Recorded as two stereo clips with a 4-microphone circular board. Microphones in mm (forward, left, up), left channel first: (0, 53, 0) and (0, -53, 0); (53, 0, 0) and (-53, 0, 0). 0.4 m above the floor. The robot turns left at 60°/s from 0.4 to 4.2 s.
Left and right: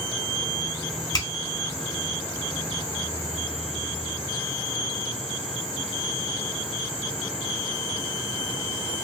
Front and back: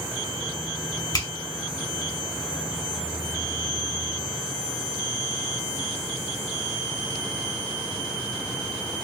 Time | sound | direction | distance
1.1 | a finger snap | 50° left | 1.3 m